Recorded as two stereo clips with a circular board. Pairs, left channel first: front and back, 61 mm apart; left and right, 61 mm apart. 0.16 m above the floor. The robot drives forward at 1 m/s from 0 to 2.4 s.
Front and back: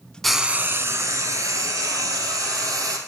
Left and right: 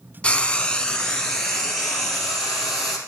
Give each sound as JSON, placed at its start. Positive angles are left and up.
{"t": 0.2, "sound": "frying", "azimuth_deg": 80, "distance_m": 0.5}